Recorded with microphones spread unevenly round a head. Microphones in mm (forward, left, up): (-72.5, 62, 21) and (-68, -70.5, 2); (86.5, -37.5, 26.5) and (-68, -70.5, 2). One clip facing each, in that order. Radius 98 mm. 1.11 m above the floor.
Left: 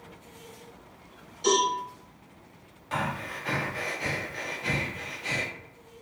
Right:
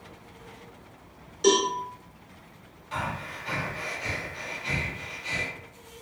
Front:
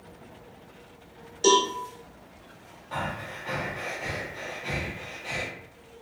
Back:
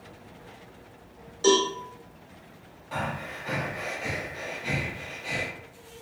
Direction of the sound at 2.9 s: 115° left.